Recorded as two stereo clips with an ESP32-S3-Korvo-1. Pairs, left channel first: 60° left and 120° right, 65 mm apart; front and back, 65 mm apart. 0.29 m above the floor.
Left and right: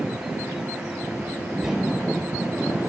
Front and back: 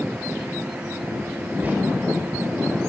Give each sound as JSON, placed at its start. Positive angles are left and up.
{"t": 1.6, "sound": "whispering", "azimuth_deg": 170, "distance_m": 1.6}